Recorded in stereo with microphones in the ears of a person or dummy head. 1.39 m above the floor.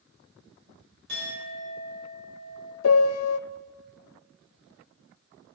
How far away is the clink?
About 4.5 m.